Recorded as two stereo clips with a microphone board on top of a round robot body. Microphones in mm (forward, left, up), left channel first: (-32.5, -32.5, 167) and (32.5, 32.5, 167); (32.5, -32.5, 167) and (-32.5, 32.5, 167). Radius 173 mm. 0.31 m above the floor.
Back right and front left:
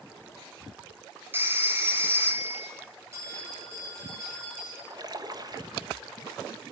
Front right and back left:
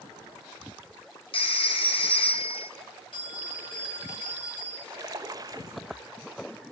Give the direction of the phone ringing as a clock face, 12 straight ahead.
1 o'clock.